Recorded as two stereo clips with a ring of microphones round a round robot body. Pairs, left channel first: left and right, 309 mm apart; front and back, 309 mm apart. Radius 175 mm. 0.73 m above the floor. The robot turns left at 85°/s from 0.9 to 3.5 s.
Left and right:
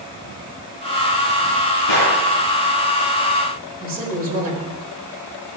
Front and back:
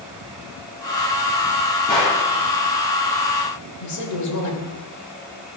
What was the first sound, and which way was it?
A gunshot, 70° left.